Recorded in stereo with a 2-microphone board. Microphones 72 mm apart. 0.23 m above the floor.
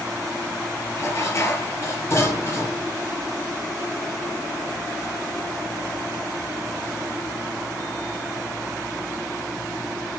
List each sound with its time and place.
1.0 s dishes clattering: 40° left (ahead or behind), 3 m